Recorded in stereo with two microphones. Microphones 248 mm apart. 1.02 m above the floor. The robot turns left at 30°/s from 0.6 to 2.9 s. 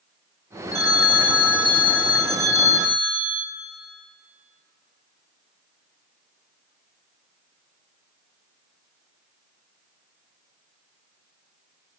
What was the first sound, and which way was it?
A phone ringing, 115° left.